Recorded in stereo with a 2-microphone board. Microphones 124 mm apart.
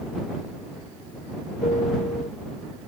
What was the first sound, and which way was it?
A piano, 70° left (ahead or behind).